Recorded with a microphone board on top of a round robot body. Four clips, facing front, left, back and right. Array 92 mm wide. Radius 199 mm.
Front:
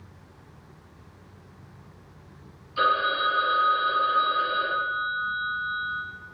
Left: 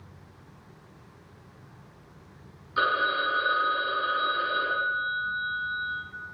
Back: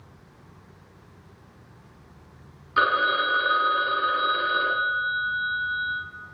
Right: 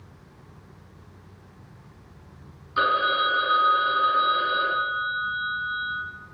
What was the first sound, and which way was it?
A phone ringing, straight behind.